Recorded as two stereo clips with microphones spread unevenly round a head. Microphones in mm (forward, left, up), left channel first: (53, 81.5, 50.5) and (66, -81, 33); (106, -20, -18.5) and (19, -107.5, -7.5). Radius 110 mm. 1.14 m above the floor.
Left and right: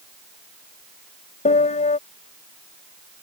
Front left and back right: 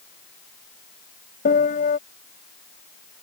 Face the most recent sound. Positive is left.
turn(degrees=50)